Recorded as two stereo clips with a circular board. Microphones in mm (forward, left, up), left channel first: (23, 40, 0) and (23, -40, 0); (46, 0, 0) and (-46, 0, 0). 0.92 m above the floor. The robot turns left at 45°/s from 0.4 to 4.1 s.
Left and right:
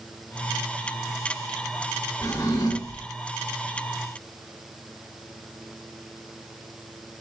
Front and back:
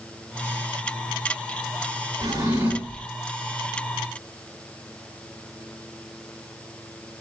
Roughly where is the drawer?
Behind left.